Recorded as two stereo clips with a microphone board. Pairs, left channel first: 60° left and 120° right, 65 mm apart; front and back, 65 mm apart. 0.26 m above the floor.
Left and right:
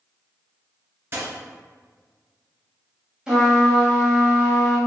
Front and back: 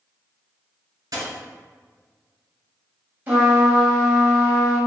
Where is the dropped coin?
170° right, 1.4 m.